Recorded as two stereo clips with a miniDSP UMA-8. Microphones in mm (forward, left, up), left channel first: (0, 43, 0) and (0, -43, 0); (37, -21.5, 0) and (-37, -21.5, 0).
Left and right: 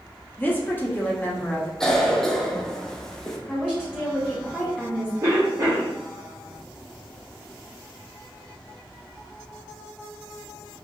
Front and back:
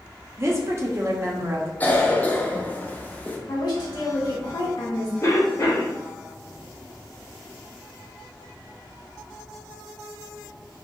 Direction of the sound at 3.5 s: 10° left.